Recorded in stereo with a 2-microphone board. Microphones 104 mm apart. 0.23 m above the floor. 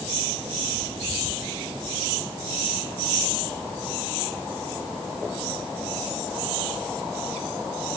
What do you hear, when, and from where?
Only background noise.